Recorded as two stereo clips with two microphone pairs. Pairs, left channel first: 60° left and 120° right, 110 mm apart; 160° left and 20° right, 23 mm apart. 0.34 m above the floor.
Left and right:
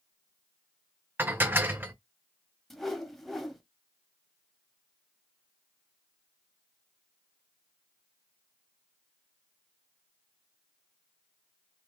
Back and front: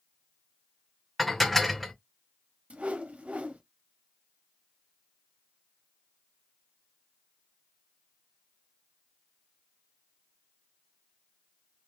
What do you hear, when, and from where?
1.2 s dishes clattering: 110° right, 0.6 m
2.7 s a whoosh: 30° right, 0.6 m